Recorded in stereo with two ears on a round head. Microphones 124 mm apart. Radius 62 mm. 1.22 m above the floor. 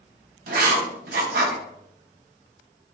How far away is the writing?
About 1.3 m.